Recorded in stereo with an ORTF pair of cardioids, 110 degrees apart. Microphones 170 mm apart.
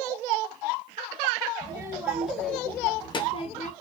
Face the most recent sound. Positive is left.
turn(degrees=45)